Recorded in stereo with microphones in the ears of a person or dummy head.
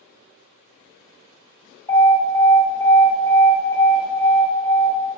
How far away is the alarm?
About 1.1 m.